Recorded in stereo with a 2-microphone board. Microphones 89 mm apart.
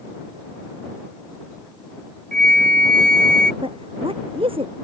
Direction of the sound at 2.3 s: 10° left (ahead or behind).